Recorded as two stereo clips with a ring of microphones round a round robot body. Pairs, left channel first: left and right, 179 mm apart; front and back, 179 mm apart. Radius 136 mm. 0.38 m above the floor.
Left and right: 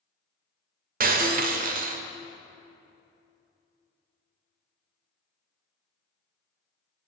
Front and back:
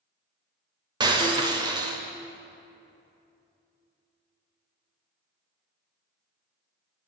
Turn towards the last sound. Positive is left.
turn(degrees=-115)